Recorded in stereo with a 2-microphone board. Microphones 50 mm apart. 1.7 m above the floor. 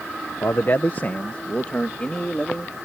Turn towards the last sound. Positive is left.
turn(degrees=15)  # may be behind; listen again after turning